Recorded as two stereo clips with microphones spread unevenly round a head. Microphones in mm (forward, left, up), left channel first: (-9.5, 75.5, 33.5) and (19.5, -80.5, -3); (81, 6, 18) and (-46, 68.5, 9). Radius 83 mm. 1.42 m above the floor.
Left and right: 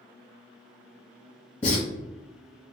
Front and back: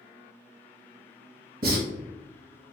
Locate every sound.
1.6 s writing: 150° left, 1.4 m